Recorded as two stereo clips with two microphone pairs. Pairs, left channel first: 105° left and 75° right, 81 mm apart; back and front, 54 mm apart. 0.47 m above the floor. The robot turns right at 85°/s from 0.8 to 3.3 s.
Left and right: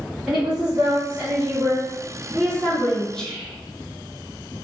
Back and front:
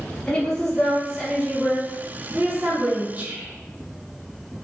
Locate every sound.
0.3 s a woman speaking: 140° right, 1.1 m; by 3.0 s 50° left, 1.1 m
3.1 s whispering: 25° left, 0.8 m; by 3.6 s 40° left, 0.8 m